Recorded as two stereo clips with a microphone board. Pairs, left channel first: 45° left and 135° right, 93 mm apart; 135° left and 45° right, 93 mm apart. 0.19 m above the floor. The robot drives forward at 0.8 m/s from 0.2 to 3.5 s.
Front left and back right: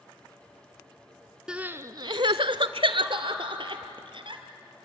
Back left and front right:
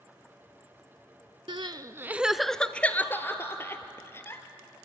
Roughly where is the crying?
Ahead right.